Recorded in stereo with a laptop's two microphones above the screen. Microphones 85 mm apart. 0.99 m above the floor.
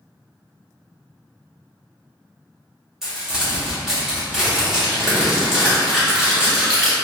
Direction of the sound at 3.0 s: 5° right (ahead or behind).